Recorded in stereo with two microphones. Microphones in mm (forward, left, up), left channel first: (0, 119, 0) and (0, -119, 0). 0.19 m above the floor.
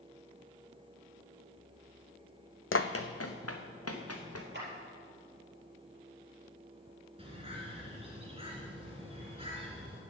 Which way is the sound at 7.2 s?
25° right (ahead or behind).